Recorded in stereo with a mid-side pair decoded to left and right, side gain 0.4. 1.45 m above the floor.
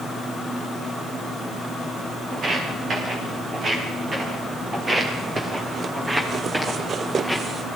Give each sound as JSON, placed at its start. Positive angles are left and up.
{"t": 2.3, "sound": "footsteps", "azimuth_deg": -55, "distance_m": 9.5}